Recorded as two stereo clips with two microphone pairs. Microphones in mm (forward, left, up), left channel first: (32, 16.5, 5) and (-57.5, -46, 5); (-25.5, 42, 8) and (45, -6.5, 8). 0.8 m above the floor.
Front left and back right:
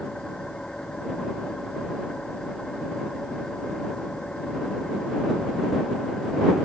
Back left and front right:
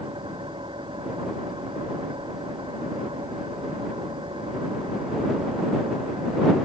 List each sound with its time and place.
0.0 s an engine running: 50° right